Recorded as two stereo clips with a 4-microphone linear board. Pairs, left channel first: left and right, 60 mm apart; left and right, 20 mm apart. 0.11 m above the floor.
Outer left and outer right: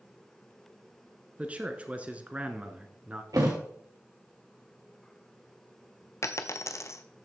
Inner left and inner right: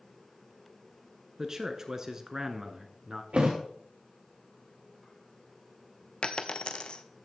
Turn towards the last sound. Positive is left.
turn(degrees=50)  # may be behind; listen again after turning